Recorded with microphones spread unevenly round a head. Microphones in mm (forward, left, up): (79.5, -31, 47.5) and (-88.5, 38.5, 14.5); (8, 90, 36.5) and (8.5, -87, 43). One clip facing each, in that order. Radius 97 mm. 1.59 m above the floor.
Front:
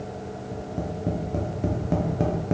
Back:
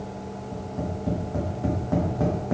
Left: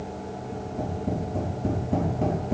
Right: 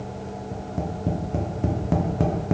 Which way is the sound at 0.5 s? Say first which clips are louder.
Even, even; 85° right.